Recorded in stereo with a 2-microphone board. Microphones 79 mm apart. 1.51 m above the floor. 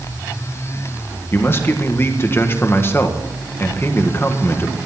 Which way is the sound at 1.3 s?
30° left (ahead or behind).